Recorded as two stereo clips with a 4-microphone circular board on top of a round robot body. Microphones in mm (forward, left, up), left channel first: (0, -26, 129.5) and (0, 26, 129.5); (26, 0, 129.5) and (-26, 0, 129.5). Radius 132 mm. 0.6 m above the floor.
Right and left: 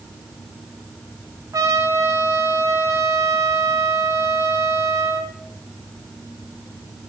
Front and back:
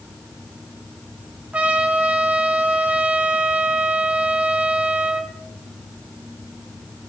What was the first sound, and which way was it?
A trumpet, 110° left.